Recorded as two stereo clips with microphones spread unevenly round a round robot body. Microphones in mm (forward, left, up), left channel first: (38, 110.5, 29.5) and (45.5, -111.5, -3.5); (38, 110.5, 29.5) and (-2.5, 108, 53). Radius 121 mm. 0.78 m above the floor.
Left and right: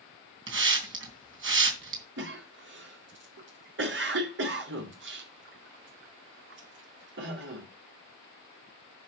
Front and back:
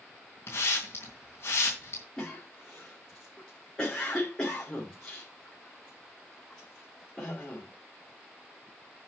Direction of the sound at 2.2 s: 60° right.